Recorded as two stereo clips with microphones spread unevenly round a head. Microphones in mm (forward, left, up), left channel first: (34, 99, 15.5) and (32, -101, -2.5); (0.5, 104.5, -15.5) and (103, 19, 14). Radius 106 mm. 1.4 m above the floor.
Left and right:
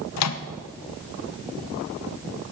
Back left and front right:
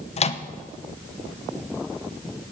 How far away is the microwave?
About 1.0 m.